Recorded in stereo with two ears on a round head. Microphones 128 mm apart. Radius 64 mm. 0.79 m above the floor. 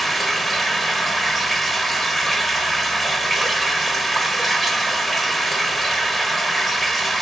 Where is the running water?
Centre (ahead or behind), 1.1 m.